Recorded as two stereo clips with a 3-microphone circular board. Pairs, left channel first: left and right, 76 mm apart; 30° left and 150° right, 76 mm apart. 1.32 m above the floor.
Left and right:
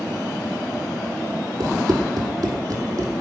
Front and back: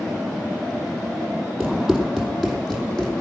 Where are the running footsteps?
75° right, 2 m; by 3.1 s 55° right, 3 m.